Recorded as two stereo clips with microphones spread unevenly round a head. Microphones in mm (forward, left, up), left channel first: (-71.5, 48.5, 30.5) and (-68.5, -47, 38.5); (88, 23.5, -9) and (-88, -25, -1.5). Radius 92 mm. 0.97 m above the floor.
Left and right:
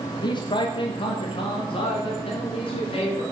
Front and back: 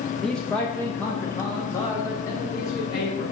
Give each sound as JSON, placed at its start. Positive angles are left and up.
{"t": 0.2, "sound": "a man speaking", "azimuth_deg": 100, "distance_m": 0.8}